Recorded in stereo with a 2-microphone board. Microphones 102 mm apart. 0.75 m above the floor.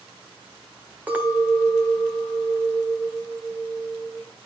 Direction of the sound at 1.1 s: 15° right (ahead or behind).